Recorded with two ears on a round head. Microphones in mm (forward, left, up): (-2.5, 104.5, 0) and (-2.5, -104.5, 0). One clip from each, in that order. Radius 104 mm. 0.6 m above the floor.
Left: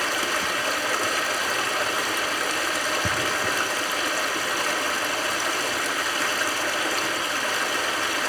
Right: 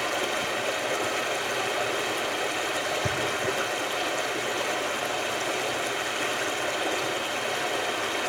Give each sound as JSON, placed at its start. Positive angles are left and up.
{"t": 0.0, "sound": "running water", "side_deg": 80, "distance_m": 2.5}